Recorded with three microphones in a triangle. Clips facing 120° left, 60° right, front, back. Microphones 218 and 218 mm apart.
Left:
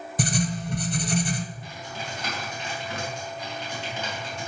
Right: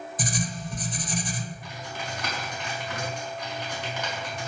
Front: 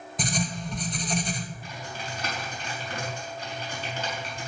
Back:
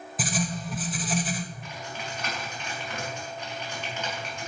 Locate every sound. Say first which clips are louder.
0.2 s writing: left 6 dB, even; 95° left, 1.0 m
1.6 s typing on a keyboard: even, even; 55° left, 4.5 m